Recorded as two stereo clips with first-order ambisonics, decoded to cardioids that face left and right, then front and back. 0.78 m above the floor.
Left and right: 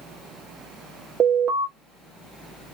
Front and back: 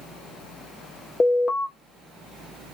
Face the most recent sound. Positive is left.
turn(degrees=-40)